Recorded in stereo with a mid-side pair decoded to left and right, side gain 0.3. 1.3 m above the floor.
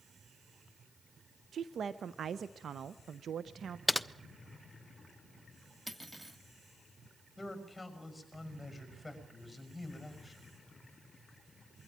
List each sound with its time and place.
1.5 s a woman speaking: 70° right, 0.6 m
3.9 s typing on a keyboard: 10° left, 0.7 m
5.9 s cutlery clinking: 15° right, 1.7 m
7.4 s a man speaking: 15° left, 6 m